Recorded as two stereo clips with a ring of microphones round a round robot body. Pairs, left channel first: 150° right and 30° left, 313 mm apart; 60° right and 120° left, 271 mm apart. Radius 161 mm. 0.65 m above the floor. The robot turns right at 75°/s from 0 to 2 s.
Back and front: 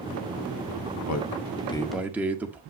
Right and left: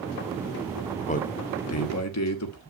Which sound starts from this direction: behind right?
A man speaking, at 1.0 s.